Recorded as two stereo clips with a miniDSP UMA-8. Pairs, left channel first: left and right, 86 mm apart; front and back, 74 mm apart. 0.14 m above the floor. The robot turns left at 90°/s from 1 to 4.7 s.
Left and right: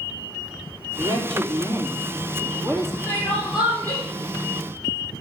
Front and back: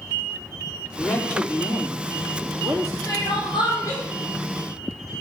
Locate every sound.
1.0 s a man speaking: 60° right, 4 m; by 3.0 s 125° left, 4 m
3.1 s crying: 35° left, 5 m; by 4.0 s 55° right, 5 m